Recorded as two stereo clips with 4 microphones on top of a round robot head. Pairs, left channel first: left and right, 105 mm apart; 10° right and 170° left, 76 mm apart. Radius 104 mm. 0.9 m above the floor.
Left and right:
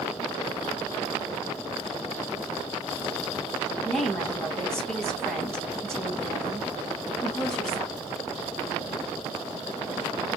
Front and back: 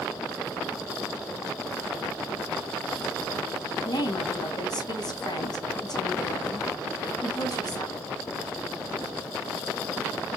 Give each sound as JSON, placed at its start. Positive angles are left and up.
{"t": 3.9, "sound": "a woman speaking", "azimuth_deg": 5, "distance_m": 1.0}